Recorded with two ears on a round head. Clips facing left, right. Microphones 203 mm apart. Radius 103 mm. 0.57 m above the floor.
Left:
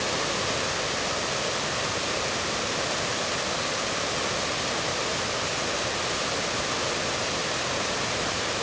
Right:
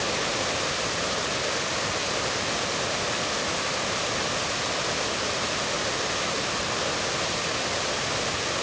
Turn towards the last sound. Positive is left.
No sound to turn to.